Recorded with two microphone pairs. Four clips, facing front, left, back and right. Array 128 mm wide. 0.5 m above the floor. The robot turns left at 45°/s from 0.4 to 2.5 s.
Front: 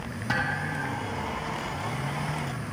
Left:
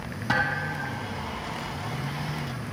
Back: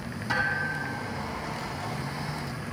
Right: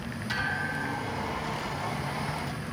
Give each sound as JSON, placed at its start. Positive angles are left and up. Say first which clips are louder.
{"t": 0.3, "sound": "a thud", "louder": "left 5 dB, back 1 dB", "azimuth_deg": 65, "distance_m": 5.5}